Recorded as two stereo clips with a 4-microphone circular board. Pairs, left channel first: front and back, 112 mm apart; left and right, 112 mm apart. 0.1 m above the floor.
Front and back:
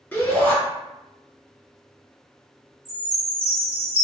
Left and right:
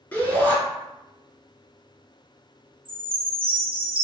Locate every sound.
0.1 s a shout: 45° left, 1.3 m
2.9 s a chime: 95° right, 2.0 m